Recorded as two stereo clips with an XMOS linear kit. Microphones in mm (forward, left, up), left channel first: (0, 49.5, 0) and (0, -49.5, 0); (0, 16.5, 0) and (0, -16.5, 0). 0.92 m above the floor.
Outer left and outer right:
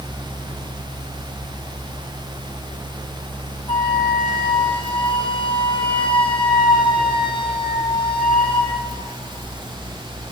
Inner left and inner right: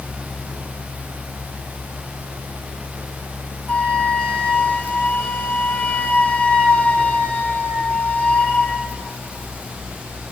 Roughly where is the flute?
Left.